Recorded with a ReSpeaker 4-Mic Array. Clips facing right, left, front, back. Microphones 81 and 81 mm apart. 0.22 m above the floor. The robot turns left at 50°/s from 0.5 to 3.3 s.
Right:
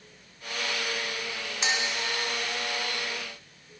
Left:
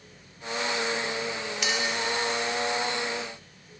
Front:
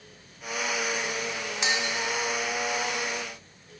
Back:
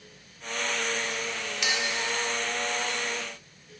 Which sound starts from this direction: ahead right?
A clink, at 1.6 s.